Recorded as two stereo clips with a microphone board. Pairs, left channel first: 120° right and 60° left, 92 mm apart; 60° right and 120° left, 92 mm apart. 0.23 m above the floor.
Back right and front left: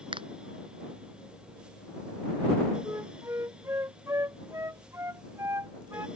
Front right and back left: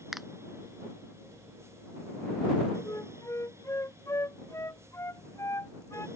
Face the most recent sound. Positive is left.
turn(degrees=0)